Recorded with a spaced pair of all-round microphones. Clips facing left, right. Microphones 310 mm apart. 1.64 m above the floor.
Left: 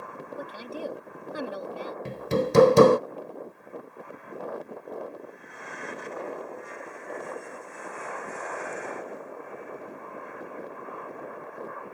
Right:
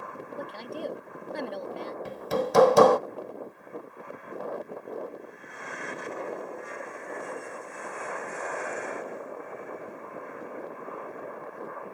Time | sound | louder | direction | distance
0.4 | a woman speaking | even | 5° left (ahead or behind) | ?
2.0 | hammering | left 3 dB | 30° left (ahead or behind) | ?